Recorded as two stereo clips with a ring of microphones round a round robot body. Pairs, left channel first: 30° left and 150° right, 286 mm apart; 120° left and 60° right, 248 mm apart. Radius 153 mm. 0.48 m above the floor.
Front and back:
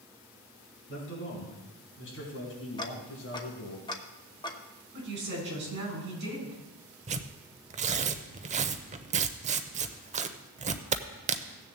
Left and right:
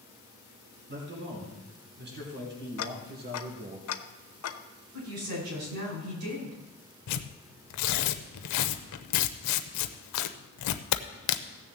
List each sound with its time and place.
0.9 s a man speaking: 20° right, 4.5 m; by 3.8 s 10° right, 3.5 m
2.8 s ticking: 105° left, 0.8 m
4.9 s a woman speaking: 100° right, 5 m
7.1 s tearing paper: 145° left, 0.6 m